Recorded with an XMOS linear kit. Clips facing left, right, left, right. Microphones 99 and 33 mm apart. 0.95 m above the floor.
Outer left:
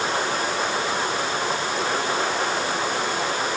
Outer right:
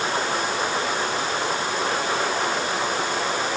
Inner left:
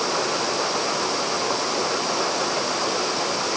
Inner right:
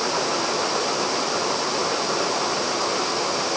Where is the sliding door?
No sliding door in this recording.